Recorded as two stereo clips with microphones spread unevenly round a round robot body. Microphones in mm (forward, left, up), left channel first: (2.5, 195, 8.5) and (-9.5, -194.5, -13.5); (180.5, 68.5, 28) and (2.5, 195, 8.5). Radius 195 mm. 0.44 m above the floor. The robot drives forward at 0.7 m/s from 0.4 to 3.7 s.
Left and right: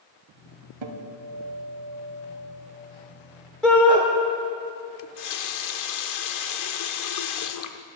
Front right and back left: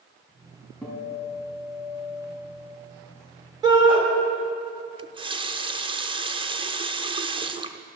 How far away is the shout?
About 1.4 m.